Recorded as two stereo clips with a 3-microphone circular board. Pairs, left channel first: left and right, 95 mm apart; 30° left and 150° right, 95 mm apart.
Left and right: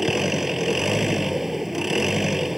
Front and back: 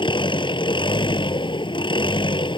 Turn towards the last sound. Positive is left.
turn(degrees=-5)